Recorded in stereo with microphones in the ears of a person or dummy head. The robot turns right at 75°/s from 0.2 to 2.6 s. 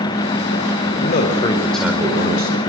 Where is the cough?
No cough in this recording.